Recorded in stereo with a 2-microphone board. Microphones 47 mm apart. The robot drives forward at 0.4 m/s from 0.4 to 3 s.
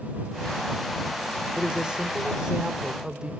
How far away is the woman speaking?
About 1.0 m.